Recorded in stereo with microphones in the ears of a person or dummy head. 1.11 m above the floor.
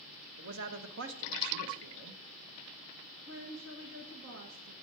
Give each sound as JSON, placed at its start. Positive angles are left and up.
{"t": 0.4, "sound": "a man speaking", "side_deg": -65, "distance_m": 0.9}
{"t": 3.3, "sound": "a woman speaking", "side_deg": -70, "distance_m": 1.4}